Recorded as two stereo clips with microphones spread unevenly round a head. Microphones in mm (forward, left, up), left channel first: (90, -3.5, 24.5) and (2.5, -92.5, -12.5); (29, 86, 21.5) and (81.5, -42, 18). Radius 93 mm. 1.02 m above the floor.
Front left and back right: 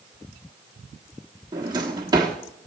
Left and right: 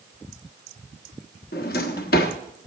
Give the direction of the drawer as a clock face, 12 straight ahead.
7 o'clock.